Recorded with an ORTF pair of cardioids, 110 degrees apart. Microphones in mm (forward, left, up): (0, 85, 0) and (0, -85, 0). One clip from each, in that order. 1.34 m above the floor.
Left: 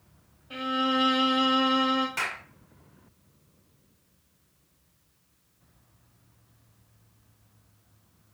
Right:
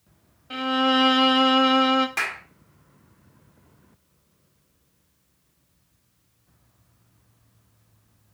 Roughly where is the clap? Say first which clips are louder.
Right 4 dB; ahead right.